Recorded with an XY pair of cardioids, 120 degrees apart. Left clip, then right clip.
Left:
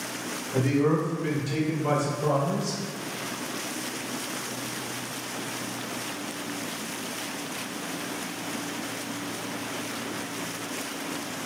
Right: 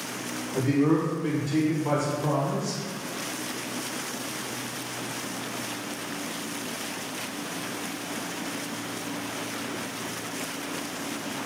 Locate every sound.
0.5 s a man speaking: 55° left, 1.2 m; by 2.8 s 75° left, 3.5 m